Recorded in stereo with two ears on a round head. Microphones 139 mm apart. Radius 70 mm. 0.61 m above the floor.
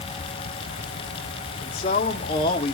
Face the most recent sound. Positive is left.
turn(degrees=25)  # may be behind; listen again after turning